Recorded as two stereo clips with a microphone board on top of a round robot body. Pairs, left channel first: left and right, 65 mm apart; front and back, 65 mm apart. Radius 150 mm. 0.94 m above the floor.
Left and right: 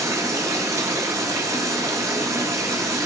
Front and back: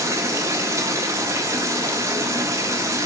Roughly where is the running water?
Behind right.